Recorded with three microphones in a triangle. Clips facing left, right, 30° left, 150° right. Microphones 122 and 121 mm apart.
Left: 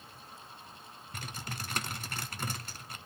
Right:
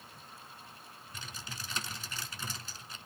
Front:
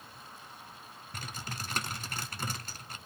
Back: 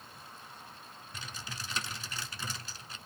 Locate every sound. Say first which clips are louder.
1.1 s typing on a keyboard: left 5 dB, front 4 dB; 60° left, 0.8 m